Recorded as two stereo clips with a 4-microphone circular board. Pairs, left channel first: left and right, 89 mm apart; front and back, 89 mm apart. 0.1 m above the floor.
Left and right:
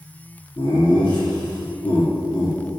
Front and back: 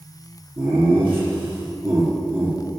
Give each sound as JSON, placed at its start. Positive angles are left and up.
{"t": 0.6, "sound": "laughter", "azimuth_deg": 115, "distance_m": 3.0}